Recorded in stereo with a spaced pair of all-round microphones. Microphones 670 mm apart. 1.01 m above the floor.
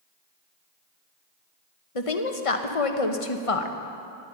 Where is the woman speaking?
55° left (ahead or behind), 1.1 m.